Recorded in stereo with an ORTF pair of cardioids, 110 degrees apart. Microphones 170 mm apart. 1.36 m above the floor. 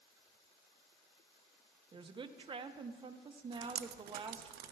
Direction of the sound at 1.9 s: 30° right.